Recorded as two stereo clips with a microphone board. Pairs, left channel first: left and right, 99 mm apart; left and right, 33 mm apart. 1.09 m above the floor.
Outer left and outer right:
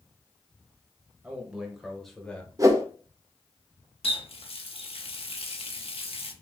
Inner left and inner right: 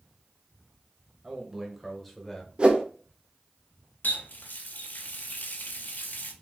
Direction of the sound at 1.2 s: 15° right (ahead or behind).